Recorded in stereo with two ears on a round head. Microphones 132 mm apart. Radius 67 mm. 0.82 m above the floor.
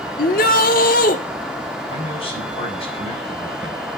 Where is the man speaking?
45° left (ahead or behind), 6 m.